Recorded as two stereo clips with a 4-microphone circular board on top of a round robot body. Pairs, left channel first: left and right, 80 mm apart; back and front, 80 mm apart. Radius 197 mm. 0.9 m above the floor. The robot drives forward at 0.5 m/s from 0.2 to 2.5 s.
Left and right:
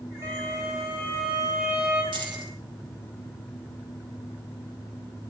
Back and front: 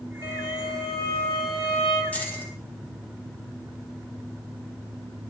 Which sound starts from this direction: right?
Keys jangling, at 2.1 s.